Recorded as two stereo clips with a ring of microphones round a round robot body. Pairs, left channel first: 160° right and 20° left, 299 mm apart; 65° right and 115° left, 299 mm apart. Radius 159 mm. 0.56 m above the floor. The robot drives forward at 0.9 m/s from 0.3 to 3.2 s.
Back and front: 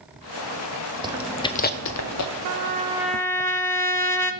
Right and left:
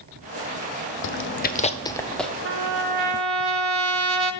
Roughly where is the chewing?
Ahead right.